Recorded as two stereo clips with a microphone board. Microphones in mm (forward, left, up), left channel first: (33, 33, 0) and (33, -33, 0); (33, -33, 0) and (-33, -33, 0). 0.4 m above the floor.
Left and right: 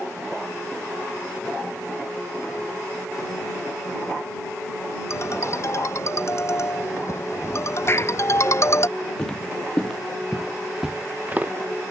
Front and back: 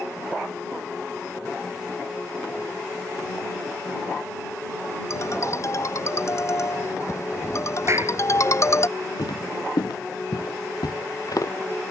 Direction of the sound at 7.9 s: 140° left.